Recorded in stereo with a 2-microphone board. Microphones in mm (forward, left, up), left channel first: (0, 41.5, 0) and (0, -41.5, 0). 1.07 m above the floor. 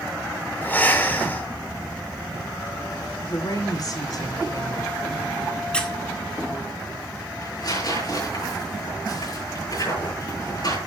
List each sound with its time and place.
0.6 s breathing: 20° left (ahead or behind), 2.5 m
3.3 s a woman speaking: 50° left (ahead or behind), 2.5 m
5.7 s a squeak: 10° left (ahead or behind), 2 m
7.4 s tearing paper: 50° left (ahead or behind), 8 m